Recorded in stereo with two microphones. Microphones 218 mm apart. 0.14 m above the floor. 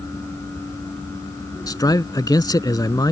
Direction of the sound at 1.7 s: 15° left (ahead or behind).